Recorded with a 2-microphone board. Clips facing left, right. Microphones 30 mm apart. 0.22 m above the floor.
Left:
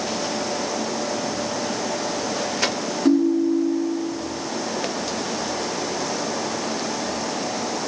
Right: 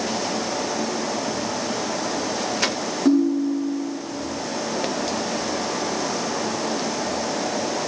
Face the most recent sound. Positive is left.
turn(degrees=10)  # may be behind; listen again after turning